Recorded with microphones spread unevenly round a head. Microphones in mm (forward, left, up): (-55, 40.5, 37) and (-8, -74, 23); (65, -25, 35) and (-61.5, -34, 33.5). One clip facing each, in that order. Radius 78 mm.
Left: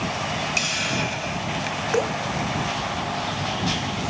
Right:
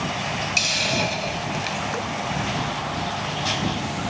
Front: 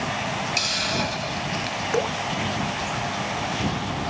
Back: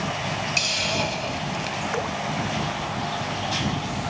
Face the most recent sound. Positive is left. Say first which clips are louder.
# left 6 dB, front 6 dB
turn(degrees=65)